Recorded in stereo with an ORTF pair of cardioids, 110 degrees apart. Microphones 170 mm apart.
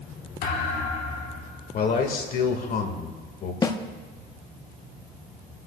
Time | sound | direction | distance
0.4 | a thud | 65° left | 3 m
1.7 | a man speaking | 55° left | 2.0 m
3.6 | a snare drum | 20° left | 0.9 m